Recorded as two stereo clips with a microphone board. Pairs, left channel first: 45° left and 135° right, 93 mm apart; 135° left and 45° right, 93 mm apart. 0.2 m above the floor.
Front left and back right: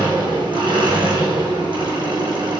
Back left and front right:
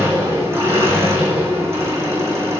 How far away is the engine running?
About 3.5 m.